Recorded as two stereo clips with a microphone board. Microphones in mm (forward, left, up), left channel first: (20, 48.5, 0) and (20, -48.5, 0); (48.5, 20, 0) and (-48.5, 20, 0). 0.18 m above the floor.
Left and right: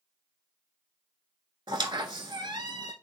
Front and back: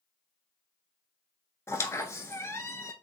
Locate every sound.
1.7 s a squeak: 55° right, 0.6 m